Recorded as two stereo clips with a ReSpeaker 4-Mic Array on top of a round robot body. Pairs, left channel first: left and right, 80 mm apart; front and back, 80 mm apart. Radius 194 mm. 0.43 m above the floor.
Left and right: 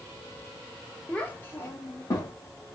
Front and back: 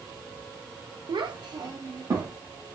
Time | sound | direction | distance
1.1 | a child speaking | 165° left | 0.9 m